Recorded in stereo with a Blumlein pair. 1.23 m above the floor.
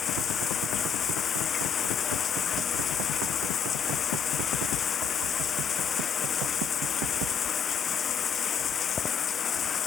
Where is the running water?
25° left.